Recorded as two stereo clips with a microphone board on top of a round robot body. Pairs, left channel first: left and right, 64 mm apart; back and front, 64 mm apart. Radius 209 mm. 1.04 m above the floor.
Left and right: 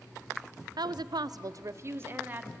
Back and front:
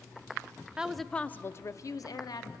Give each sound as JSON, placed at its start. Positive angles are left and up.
{"t": 0.8, "sound": "a woman speaking", "azimuth_deg": -75, "distance_m": 0.6}